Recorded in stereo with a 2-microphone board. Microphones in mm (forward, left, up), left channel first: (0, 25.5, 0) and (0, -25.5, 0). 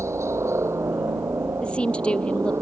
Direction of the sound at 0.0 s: 65° right (ahead or behind).